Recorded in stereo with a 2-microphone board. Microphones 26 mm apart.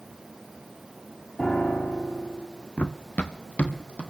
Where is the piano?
70° left (ahead or behind), 3.5 m.